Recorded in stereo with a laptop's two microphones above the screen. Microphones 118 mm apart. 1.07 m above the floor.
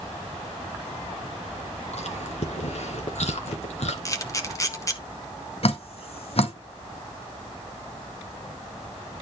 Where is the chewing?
70° left (ahead or behind), 2.5 m.